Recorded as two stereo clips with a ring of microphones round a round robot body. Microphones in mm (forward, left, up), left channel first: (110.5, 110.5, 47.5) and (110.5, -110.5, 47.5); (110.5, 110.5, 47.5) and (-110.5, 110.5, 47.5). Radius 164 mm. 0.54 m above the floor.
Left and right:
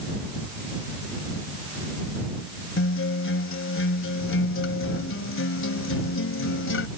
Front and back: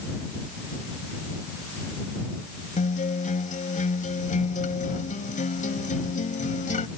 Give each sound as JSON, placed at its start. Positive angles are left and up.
{"t": 2.8, "sound": "a guitar", "azimuth_deg": 60}